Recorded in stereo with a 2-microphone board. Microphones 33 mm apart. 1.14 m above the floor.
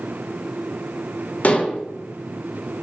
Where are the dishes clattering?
45° left (ahead or behind), 0.5 m.